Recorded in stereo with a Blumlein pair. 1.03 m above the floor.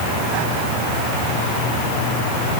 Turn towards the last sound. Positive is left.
No sound to turn to.